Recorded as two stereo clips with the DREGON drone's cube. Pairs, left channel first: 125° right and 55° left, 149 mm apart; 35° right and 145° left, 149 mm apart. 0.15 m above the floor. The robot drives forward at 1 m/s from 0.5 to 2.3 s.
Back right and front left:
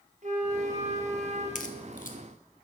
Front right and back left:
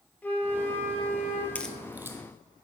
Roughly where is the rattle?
I don't hear a rattle.